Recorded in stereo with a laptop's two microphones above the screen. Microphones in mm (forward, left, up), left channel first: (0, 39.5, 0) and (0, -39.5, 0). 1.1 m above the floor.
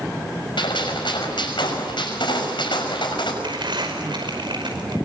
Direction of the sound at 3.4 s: 85° right.